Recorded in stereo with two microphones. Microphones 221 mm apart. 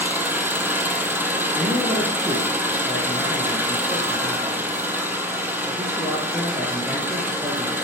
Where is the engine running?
10° right (ahead or behind), 1.3 m.